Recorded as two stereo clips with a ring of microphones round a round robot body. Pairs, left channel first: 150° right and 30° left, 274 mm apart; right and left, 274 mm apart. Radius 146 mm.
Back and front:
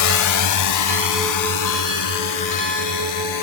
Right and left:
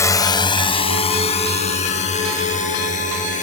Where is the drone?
170° right; by 3.4 s 155° right.